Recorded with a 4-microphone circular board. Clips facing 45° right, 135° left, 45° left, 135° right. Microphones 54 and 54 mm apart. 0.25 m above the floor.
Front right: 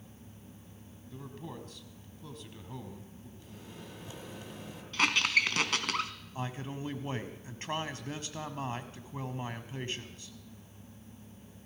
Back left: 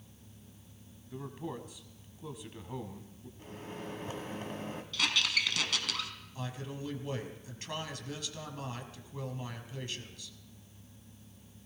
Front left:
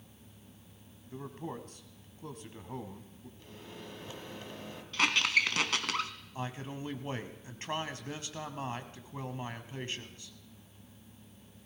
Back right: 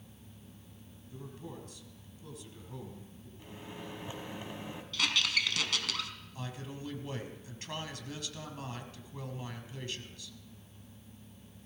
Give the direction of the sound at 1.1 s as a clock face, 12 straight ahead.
10 o'clock.